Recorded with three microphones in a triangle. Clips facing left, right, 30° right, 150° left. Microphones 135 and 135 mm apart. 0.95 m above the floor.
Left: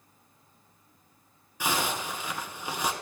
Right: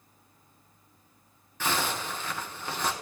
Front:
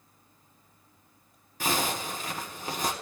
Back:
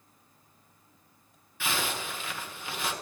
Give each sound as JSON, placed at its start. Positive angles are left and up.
{"t": 1.6, "sound": "a zipper", "azimuth_deg": 15, "distance_m": 1.8}